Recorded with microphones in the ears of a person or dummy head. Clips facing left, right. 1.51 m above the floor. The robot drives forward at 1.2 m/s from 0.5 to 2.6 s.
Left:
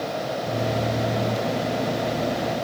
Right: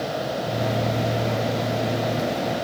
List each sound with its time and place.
Only background noise.